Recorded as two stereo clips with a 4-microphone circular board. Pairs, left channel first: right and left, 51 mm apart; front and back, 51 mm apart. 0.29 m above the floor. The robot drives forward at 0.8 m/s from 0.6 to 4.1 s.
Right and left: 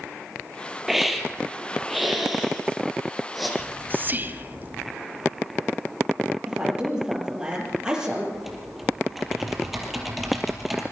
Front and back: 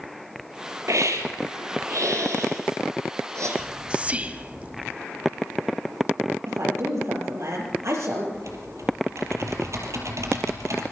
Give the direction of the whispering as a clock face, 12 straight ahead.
9 o'clock.